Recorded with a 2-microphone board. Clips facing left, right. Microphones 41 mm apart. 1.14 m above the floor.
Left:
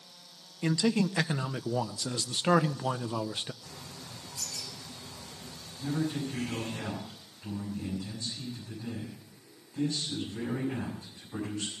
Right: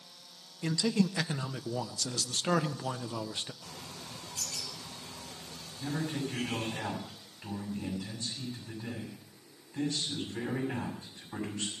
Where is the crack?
No crack in this recording.